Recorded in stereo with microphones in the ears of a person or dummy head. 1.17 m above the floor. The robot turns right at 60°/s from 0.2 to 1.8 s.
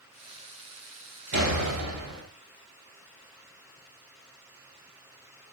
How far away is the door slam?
About 5 m.